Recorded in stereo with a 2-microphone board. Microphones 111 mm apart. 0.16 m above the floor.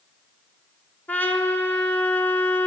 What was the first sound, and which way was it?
A trumpet, 15° left (ahead or behind).